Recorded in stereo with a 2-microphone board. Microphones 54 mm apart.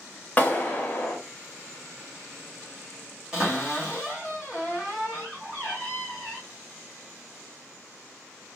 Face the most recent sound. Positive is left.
turn(degrees=-15)  # may be behind; listen again after turning